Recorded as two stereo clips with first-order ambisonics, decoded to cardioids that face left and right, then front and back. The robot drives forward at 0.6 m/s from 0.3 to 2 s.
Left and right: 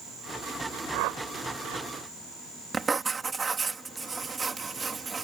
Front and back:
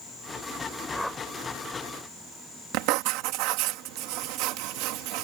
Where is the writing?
165° right.